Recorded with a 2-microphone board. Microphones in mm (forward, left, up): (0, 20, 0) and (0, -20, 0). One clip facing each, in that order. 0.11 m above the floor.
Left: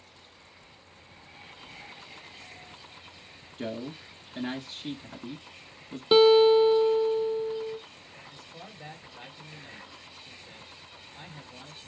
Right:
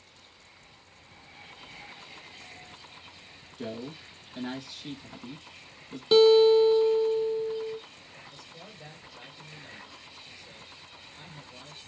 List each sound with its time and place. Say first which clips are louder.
3.6 s a man speaking: left 2 dB; 25° left (ahead or behind), 1.3 m
6.1 s a guitar: even; 15° left (ahead or behind), 0.7 m
8.3 s a man speaking: left 1 dB; 30° left (ahead or behind), 1.8 m